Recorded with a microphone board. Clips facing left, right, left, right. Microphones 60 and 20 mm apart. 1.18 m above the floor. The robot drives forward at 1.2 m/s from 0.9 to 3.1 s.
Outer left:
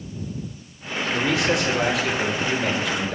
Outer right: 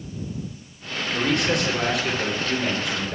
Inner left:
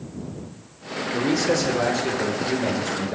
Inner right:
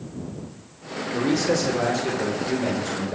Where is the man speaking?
5° left (ahead or behind), 3.5 m; by 3.1 s centre (ahead or behind), 6 m.